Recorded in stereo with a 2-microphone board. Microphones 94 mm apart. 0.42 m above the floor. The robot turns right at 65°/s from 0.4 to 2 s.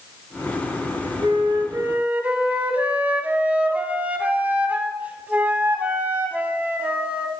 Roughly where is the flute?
Right.